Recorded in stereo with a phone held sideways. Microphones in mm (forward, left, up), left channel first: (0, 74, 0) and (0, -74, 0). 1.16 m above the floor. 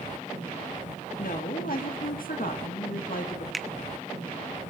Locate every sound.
1.2 s a woman speaking: 75° left (ahead or behind), 1.5 m
3.5 s a finger snap: centre (ahead or behind), 0.6 m